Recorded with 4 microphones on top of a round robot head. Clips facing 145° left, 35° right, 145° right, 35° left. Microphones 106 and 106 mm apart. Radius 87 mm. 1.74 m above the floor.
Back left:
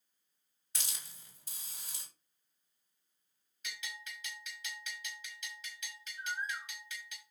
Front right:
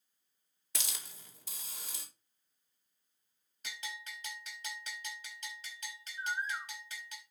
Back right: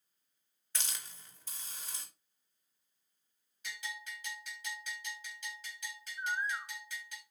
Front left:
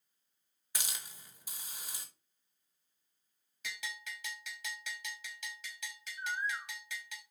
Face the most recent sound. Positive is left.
turn(degrees=-80)